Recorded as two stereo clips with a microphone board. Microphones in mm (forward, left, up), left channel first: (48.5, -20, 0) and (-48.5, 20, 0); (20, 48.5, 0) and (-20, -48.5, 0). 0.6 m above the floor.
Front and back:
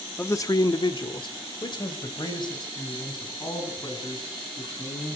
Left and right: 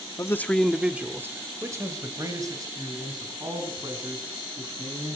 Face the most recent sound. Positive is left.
turn(degrees=-65)